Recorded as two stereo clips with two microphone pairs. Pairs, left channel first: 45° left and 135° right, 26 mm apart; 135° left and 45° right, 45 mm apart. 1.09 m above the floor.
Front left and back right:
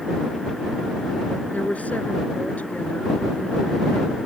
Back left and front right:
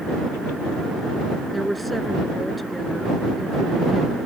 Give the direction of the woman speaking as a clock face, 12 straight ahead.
10 o'clock.